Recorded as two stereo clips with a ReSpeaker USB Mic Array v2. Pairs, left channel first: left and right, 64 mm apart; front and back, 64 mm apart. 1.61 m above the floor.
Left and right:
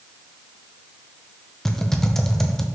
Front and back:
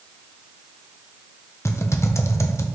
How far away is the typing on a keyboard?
About 0.7 m.